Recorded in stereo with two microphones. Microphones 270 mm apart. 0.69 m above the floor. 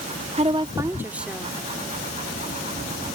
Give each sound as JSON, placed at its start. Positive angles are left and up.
{"t": 0.4, "sound": "a woman speaking", "side_deg": -25}